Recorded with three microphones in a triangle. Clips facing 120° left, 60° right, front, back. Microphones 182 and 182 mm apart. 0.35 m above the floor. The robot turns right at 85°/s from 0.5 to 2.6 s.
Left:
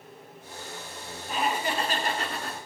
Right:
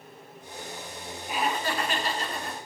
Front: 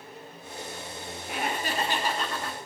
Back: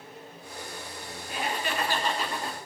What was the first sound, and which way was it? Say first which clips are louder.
Laughter: even, front 1 dB; 15° left.